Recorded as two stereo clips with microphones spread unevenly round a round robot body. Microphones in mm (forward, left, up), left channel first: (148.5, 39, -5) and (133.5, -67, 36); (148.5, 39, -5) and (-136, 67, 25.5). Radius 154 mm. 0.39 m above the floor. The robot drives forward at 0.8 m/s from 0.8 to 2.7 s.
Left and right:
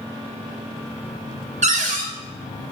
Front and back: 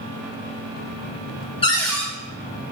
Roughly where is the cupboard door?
Right.